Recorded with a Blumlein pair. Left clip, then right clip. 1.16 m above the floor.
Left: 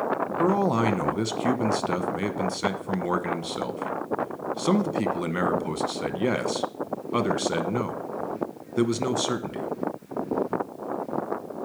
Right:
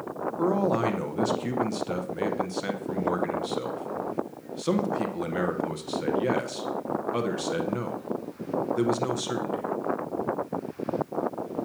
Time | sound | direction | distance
0.4 | a man speaking | 10° left | 0.8 m